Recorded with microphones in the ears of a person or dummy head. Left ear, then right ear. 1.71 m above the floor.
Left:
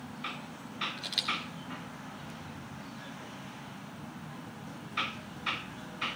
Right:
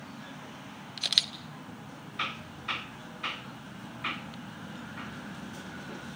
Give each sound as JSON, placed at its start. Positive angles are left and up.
{"t": 1.0, "sound": "a camera shutter", "side_deg": -40, "distance_m": 1.3}